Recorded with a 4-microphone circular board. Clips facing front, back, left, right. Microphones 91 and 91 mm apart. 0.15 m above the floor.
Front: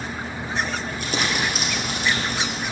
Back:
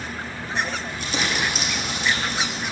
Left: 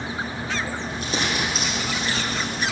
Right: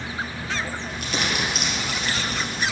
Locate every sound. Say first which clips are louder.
0.9 s crumpling: front 1 dB, left 1 dB; 35° left, 3 m